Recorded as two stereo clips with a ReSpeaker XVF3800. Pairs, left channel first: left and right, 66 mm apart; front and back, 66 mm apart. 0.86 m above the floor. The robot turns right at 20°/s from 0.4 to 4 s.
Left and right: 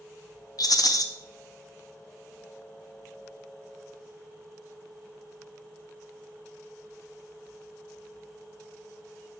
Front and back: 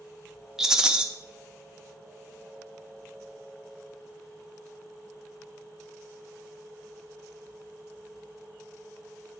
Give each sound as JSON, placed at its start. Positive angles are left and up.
{"t": 0.6, "sound": "a rattle", "azimuth_deg": 95, "distance_m": 0.5}